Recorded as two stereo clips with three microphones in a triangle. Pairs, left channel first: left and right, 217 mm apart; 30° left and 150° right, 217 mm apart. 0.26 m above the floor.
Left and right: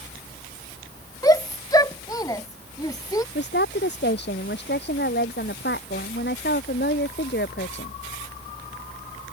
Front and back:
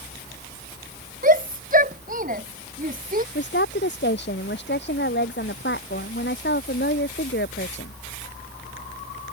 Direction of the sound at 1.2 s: 165° left.